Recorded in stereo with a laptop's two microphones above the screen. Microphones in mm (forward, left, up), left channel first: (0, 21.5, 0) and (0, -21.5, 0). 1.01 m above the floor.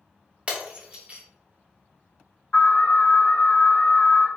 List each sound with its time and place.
0.5 s breaking glass: 25° right (ahead or behind), 0.8 m
2.5 s an alarm: 75° left (ahead or behind), 1.9 m